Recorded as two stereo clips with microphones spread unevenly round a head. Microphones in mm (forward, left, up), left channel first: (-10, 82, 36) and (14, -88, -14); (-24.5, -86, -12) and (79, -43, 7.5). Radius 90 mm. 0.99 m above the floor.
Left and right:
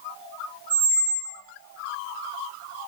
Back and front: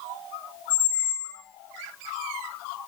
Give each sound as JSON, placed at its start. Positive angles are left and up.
{"t": 0.7, "sound": "a squeak", "azimuth_deg": -115, "distance_m": 1.2}